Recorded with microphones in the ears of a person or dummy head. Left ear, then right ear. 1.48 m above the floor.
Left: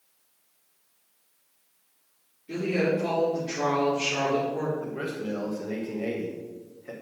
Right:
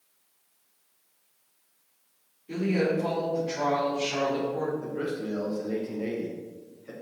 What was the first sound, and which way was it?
A woman speaking, centre (ahead or behind).